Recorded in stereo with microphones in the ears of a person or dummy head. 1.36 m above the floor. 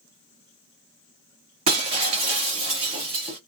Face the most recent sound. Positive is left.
turn(degrees=-25)  # may be behind; listen again after turning